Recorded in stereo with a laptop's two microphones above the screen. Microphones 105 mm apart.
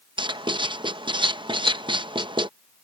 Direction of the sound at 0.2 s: 50° right (ahead or behind).